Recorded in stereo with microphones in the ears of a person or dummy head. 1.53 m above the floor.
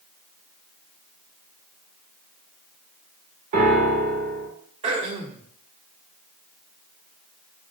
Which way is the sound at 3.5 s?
40° right (ahead or behind).